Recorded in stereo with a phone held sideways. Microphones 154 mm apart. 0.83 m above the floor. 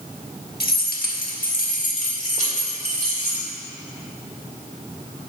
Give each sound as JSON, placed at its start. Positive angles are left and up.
{"t": 0.6, "sound": "keys jangling", "side_deg": 80, "distance_m": 1.1}